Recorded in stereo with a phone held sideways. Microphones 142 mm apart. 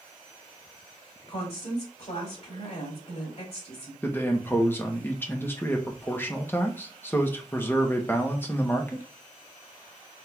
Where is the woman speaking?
50° left (ahead or behind), 3 m.